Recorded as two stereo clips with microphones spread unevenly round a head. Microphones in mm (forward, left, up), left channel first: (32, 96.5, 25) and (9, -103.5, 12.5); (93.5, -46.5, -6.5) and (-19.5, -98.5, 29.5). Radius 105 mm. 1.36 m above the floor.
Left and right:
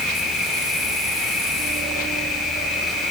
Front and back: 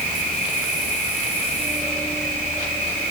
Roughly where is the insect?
Behind.